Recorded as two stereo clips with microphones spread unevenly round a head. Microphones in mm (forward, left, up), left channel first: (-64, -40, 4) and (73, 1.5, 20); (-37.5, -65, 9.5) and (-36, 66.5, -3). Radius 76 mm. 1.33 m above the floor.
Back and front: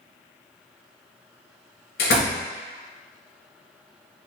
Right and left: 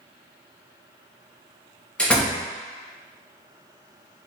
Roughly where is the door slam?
Behind.